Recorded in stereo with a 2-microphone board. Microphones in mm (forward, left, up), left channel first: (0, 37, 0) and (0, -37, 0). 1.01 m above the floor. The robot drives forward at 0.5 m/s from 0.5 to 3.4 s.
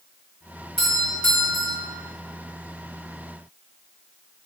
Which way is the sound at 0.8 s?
5° left (ahead or behind).